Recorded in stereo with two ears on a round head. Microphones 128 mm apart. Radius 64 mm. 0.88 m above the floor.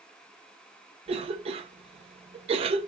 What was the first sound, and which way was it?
A cough, 40° right (ahead or behind).